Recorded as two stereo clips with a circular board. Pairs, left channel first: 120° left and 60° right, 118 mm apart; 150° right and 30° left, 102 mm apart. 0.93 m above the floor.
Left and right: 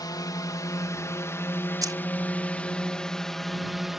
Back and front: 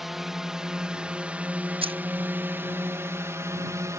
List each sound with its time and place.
0.0 s a drone: 115° left; by 4.0 s 25° left
1.8 s keys jangling: straight ahead